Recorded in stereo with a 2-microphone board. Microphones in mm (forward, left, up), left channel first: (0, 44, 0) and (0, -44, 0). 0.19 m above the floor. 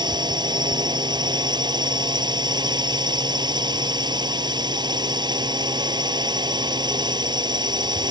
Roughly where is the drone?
Right.